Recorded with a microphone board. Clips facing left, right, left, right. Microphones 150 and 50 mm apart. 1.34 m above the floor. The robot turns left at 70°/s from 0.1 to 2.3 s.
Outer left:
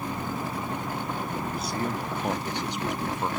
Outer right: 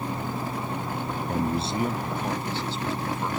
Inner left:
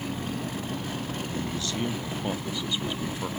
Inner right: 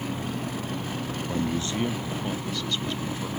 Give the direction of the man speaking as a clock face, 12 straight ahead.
4 o'clock.